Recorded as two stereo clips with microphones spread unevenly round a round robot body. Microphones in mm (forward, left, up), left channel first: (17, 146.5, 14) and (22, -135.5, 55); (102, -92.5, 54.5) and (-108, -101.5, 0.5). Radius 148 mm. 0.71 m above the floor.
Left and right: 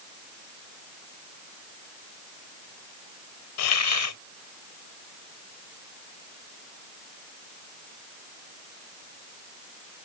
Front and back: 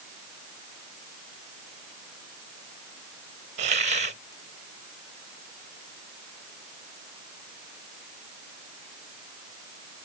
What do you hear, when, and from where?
3.6 s a hiss: 120° left